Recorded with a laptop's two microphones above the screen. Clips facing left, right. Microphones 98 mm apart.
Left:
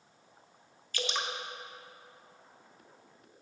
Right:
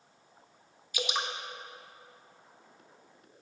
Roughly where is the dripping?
Centre.